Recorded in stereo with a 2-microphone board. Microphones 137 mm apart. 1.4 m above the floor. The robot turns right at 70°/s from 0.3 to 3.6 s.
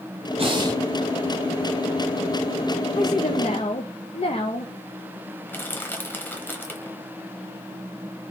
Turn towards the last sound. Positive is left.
turn(degrees=15)  # may be behind; listen again after turning